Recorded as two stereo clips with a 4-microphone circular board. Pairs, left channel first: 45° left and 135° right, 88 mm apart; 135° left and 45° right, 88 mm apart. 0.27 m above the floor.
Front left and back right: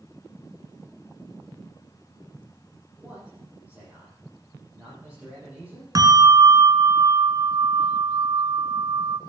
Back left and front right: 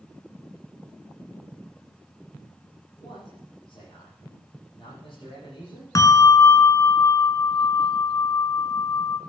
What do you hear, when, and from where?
3.0 s a man speaking: 150° left, 9 m
6.0 s a bell: straight behind, 1.2 m